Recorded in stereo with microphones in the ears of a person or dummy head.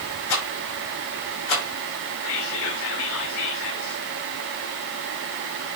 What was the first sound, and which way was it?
A rattle, 75° left (ahead or behind).